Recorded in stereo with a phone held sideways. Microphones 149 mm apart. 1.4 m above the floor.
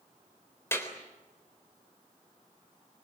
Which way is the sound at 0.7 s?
15° left (ahead or behind).